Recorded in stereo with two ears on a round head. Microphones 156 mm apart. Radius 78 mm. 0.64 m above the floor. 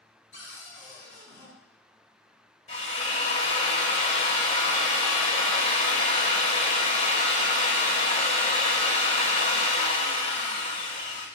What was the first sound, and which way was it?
A cupboard door, 80° left.